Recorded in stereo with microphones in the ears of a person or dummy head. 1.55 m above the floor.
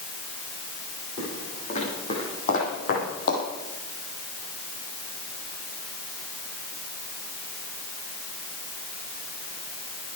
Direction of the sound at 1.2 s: 35° left (ahead or behind).